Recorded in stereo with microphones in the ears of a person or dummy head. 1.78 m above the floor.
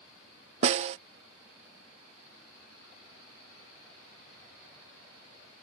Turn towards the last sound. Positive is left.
turn(degrees=-35)  # may be behind; listen again after turning